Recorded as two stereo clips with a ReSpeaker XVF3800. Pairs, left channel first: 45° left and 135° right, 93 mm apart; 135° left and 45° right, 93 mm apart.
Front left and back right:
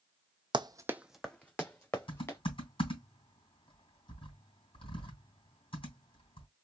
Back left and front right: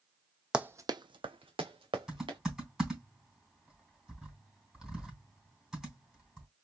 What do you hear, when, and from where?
0.5 s running footsteps: 125° right, 0.6 m; by 2.4 s 15° right, 1.9 m
2.1 s typing on a keyboard: 40° left, 3 m